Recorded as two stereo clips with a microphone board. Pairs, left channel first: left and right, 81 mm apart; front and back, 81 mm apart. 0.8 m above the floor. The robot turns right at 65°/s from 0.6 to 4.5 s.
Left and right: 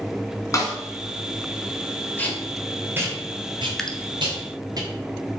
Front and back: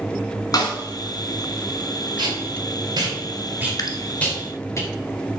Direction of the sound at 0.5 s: 40° left.